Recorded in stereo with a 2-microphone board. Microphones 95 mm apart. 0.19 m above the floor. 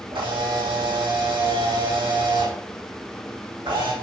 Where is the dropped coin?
I don't hear a dropped coin.